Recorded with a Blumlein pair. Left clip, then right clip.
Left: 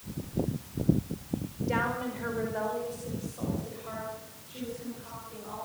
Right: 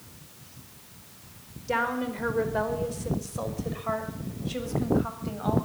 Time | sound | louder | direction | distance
1.7 | a woman speaking | right 3 dB | 15° right | 5 m